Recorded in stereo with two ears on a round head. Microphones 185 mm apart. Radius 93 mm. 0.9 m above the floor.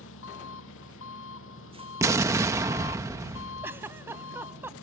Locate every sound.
0.0 s an engine running: 70° left (ahead or behind)
2.0 s an explosion: 15° right (ahead or behind)
3.6 s a giggle: 10° right (ahead or behind)